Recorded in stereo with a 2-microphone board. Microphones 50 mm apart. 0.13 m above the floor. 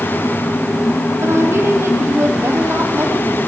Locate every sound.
1.2 s a woman speaking: 55° right (ahead or behind), 5 m